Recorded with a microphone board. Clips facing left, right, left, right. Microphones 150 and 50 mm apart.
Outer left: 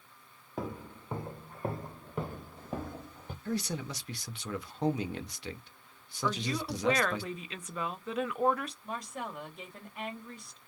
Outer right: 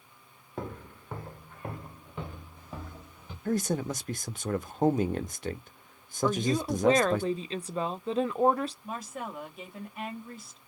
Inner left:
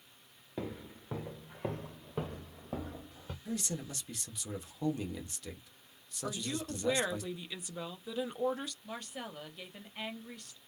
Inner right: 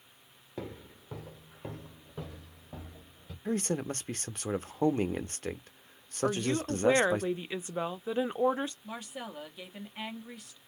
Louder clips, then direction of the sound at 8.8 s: Outer right 2 dB, inner right 2 dB; 5° right (ahead or behind).